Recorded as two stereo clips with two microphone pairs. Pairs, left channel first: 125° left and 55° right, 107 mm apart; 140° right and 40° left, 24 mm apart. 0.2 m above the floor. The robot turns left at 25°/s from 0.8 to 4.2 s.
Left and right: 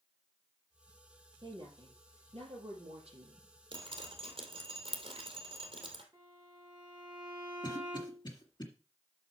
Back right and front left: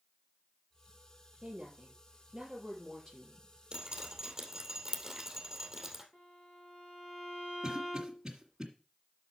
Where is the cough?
105° left, 1.8 m.